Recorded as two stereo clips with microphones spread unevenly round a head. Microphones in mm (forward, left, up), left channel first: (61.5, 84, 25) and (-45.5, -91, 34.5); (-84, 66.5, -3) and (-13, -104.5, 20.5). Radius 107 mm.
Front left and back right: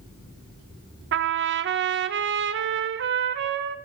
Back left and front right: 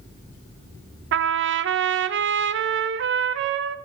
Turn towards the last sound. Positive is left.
turn(degrees=-85)